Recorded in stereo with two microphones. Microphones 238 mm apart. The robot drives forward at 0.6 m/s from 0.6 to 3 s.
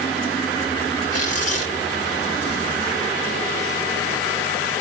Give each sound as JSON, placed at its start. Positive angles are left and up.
{"t": 1.1, "sound": "tearing paper", "side_deg": 80, "distance_m": 4.5}